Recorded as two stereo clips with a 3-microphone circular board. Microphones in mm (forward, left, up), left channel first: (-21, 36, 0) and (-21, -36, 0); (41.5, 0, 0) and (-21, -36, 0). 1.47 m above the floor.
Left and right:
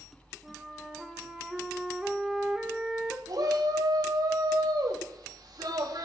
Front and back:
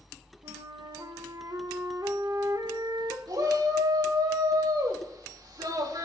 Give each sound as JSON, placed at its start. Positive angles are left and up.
{"t": 0.4, "sound": "a flute", "azimuth_deg": -175, "distance_m": 1.6}
{"t": 3.3, "sound": "a shout", "azimuth_deg": -120, "distance_m": 3.0}